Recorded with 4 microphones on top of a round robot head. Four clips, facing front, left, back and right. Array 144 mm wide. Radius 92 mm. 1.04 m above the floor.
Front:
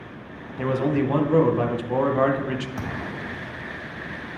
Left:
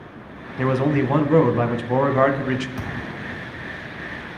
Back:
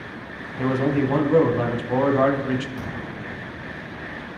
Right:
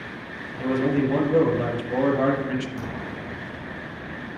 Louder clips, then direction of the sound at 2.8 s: Left 1 dB, front 1 dB; 30° left.